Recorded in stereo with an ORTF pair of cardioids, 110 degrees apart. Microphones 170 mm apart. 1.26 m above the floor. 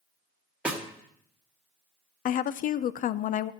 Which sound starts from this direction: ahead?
A snare drum, at 0.7 s.